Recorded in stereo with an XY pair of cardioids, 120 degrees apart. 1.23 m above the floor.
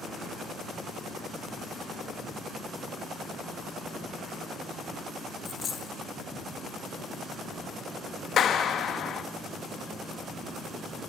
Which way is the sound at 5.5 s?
45° left.